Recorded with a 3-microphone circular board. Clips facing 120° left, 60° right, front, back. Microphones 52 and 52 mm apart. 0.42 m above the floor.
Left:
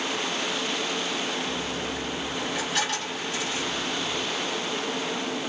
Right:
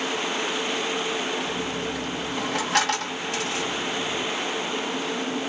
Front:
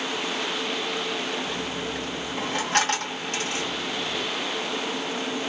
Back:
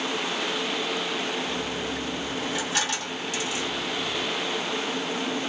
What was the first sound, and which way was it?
A dropped coin, 40° right.